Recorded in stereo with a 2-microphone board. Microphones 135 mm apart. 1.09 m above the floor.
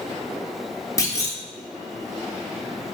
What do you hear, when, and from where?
1.0 s a clunk: 25° left (ahead or behind), 0.7 m